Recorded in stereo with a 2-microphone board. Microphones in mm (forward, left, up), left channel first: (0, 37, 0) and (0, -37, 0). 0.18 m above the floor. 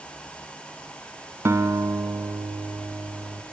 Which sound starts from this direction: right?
A guitar, at 1.4 s.